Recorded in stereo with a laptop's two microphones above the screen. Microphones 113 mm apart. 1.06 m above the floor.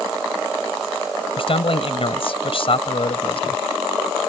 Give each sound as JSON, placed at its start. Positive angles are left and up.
{"t": 1.4, "sound": "a man speaking", "side_deg": 55}